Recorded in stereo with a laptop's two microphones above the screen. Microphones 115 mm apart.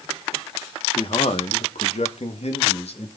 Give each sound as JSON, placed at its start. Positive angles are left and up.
{"t": 0.9, "sound": "a man speaking", "side_deg": 50, "distance_m": 1.2}